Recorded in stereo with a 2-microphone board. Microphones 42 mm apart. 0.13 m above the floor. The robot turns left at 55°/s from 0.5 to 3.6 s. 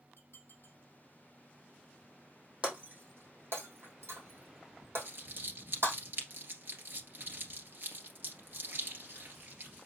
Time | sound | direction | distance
0.2 | dishes clattering | 75° left (ahead or behind) | 4 m
2.6 | breaking glass | 30° right (ahead or behind) | 2.5 m
5.0 | crumpling | 55° right (ahead or behind) | 2.0 m